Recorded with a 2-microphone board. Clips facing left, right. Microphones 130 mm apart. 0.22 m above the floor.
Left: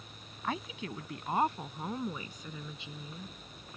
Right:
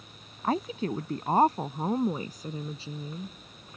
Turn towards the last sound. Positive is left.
turn(degrees=-35)  # may be behind; listen again after turning